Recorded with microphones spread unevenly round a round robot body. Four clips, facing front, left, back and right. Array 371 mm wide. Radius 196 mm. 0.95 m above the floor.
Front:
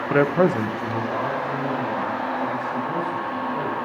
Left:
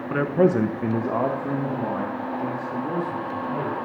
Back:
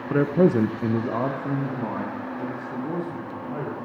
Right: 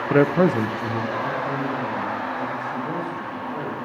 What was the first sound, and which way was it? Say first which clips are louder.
A man speaking: right 2 dB, front 1 dB; 45° right.